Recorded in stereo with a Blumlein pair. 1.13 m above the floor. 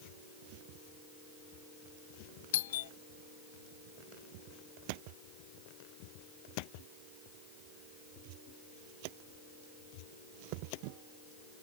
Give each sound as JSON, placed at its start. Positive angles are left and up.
{"t": 2.5, "sound": "a doorbell", "azimuth_deg": 55}